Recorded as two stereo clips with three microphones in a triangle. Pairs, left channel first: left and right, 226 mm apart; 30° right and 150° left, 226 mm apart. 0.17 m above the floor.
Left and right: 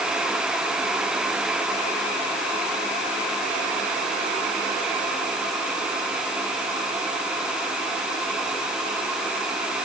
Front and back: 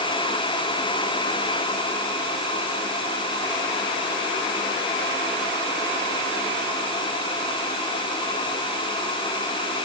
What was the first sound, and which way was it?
Only background noise.